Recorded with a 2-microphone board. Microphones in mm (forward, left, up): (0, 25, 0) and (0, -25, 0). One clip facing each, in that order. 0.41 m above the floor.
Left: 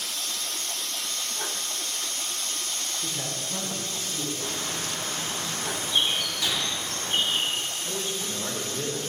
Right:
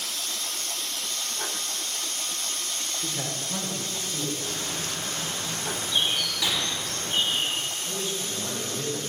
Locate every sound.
3.0 s a man speaking: 15° right (ahead or behind), 0.8 m; by 4.3 s 30° right (ahead or behind), 1.5 m
4.4 s a bird: 40° left (ahead or behind), 2 m
6.4 s a gunshot: 25° right (ahead or behind), 0.9 m
7.8 s a man speaking: 25° left (ahead or behind), 1.1 m